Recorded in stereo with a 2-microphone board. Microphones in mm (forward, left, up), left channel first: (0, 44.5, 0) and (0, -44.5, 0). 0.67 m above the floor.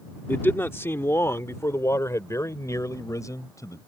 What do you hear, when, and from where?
0.3 s a man speaking: 25° left (ahead or behind); by 3.8 s 40° left (ahead or behind)